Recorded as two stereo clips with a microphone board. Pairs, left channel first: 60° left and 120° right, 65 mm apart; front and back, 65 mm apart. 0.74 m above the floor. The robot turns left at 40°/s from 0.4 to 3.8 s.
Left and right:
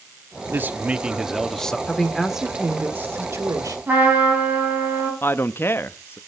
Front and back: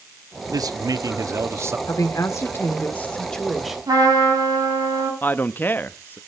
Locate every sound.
0.5 s a man speaking: 175° right, 1.0 m; by 1.8 s 135° left, 1.0 m
1.9 s a woman speaking: 20° right, 1.6 m; by 3.8 s 95° right, 1.6 m
3.9 s a trumpet: 175° left, 6 m
5.2 s a man speaking: 35° left, 0.6 m